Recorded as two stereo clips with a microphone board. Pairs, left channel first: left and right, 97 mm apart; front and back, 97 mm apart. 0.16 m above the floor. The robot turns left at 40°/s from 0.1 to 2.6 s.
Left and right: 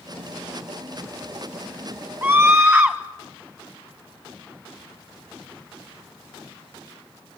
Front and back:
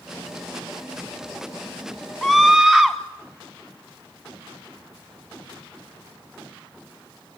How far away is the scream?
About 1.0 m.